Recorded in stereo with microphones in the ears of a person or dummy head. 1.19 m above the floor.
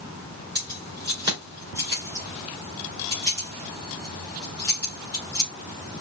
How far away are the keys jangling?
About 3.5 m.